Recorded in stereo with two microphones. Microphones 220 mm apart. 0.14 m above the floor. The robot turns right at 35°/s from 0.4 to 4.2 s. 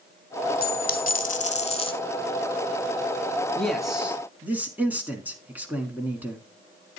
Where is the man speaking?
5° left (ahead or behind), 1.3 m; by 6.4 s 5° right (ahead or behind), 1.3 m.